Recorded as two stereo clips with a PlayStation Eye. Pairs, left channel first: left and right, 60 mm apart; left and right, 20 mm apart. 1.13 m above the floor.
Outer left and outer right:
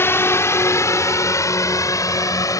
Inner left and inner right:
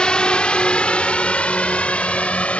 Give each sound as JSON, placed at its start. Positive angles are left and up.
{"t": 0.0, "sound": "a drone", "side_deg": 45}